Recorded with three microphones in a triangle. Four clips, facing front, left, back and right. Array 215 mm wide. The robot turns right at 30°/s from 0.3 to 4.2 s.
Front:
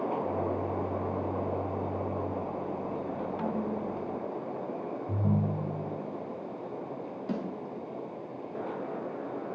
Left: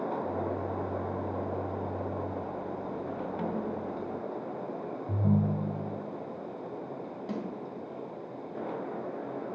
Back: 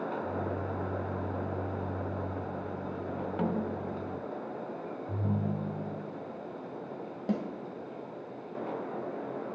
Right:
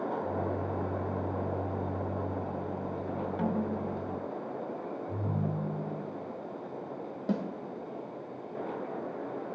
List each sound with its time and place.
3.4 s a snare drum: 175° left, 1.5 m; by 4.2 s 160° right, 1.5 m
5.1 s a ringtone: 85° left, 2 m
7.3 s a snare drum: 140° right, 3 m